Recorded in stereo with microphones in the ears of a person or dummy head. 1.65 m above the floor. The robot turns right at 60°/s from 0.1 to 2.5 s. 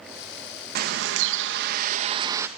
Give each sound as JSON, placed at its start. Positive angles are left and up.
{"t": 0.8, "sound": "a bird", "azimuth_deg": -120, "distance_m": 1.4}